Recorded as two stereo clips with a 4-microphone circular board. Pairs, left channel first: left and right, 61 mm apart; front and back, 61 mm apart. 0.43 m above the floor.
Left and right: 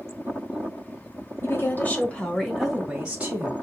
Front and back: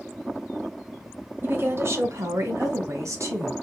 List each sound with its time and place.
1.4 s a woman speaking: 135° left, 1.6 m; by 3.5 s 150° right, 1.9 m